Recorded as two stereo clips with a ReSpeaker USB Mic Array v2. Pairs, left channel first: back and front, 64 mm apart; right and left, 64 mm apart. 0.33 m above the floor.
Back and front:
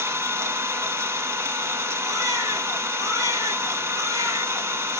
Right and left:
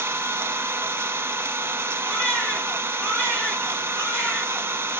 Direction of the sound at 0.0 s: 40° left.